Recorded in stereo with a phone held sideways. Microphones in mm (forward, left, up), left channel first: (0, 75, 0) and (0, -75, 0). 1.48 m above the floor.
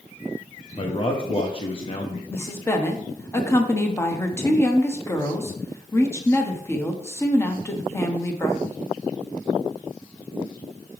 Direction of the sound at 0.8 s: 35° left (ahead or behind).